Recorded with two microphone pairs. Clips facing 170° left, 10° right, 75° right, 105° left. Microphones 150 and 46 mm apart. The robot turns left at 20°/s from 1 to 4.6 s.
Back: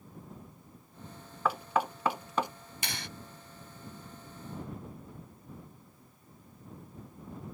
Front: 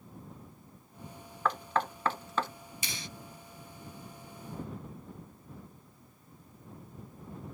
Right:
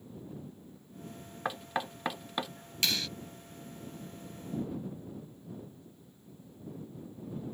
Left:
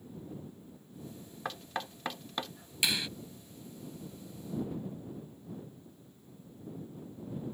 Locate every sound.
1.4 s knocking: 120° right; by 2.5 s 145° right
2.8 s a clap: straight behind; by 3.1 s 175° left